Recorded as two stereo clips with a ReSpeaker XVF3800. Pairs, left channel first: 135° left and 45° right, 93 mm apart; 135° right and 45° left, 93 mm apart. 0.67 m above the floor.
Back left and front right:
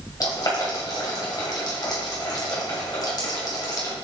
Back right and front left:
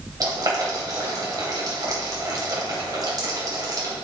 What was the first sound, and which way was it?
Boiling, 90° left.